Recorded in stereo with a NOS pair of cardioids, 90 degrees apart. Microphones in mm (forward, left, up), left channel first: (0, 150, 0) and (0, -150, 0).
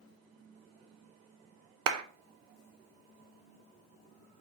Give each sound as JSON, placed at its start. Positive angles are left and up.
{"t": 1.9, "sound": "a clap", "azimuth_deg": -60, "distance_m": 0.7}